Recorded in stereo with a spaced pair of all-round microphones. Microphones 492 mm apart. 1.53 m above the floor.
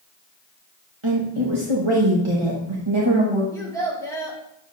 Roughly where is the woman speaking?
Right.